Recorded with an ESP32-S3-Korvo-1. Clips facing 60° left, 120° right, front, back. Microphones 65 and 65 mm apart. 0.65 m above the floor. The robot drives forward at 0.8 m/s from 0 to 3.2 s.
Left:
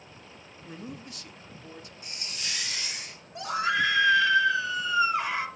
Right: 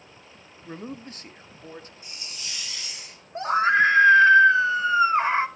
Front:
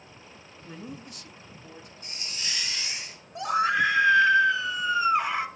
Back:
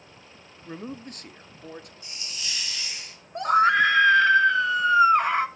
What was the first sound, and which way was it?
A man speaking, 135° right.